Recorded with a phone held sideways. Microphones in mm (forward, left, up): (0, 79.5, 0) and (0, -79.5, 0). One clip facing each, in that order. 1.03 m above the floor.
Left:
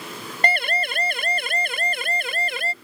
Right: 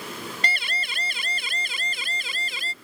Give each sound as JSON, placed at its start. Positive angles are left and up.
{"t": 0.4, "sound": "a siren", "side_deg": 55}